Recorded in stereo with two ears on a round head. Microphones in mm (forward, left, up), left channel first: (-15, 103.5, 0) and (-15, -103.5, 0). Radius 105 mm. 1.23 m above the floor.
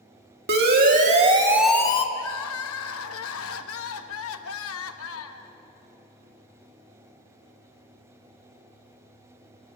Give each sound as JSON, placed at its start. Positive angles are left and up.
{"t": 0.5, "sound": "a siren", "side_deg": -45, "distance_m": 2.5}
{"t": 2.1, "sound": "crying", "side_deg": 60, "distance_m": 1.1}